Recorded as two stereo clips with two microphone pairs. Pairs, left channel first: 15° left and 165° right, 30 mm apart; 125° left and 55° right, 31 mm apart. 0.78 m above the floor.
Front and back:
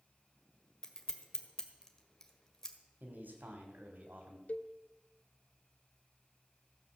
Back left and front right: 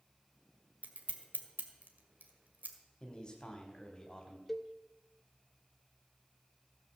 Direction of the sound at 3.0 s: 170° right.